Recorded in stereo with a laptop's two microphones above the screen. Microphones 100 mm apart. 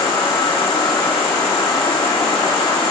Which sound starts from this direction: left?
An insect, at 0.0 s.